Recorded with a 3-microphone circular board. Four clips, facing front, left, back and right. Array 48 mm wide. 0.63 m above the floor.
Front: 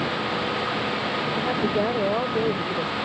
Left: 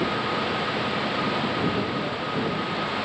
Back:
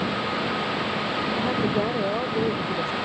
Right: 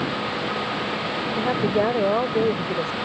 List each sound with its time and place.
1.4 s a woman speaking: 80° right